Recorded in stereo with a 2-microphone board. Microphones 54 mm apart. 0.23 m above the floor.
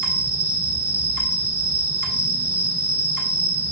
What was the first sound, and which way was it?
An insect, 40° left (ahead or behind).